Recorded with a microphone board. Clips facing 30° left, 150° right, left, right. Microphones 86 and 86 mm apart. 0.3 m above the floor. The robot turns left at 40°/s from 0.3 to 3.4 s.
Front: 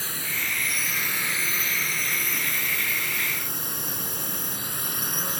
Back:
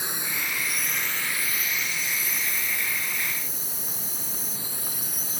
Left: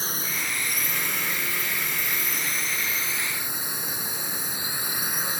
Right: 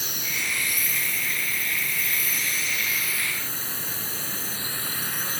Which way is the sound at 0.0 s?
140° left.